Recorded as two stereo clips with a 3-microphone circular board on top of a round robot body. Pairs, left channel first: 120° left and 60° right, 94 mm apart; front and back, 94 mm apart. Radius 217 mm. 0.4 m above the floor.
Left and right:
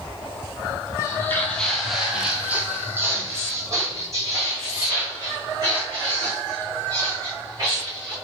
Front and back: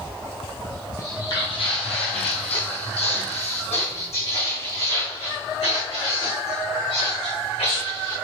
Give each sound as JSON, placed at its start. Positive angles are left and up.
{"t": 1.0, "sound": "footsteps", "azimuth_deg": 60, "distance_m": 1.0}